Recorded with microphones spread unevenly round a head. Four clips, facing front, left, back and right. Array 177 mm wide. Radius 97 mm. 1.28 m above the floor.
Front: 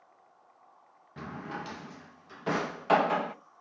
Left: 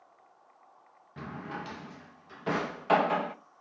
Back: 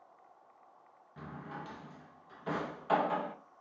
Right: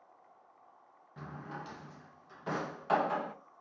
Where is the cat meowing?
I don't hear a cat meowing.